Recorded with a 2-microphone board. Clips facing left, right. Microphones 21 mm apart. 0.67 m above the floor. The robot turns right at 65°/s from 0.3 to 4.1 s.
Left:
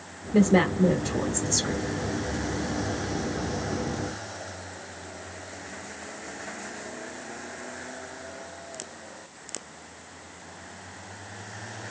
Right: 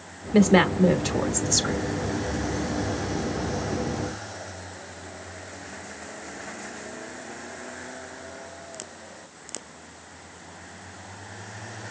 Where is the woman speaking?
55° right (ahead or behind), 1.5 m; by 1.8 s 25° right (ahead or behind), 1.5 m.